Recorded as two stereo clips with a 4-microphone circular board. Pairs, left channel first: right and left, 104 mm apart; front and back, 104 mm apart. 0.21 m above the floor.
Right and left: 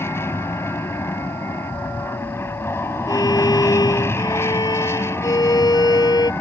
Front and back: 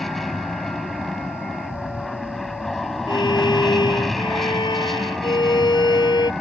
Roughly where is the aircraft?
Right.